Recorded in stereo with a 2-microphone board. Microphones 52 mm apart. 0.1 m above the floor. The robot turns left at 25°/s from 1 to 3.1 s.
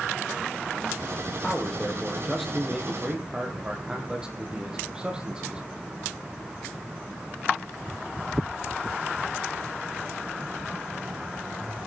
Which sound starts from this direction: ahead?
A man speaking, at 1.4 s.